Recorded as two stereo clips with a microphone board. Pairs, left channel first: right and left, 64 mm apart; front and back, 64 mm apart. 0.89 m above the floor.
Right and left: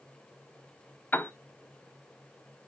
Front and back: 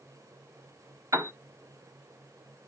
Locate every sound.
1.1 s a piano: 155° right, 1.3 m